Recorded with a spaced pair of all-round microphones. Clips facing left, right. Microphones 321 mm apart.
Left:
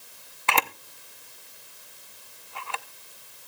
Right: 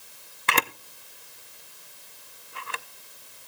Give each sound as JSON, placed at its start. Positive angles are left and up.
{"t": 0.5, "sound": "a camera shutter", "side_deg": -25, "distance_m": 0.6}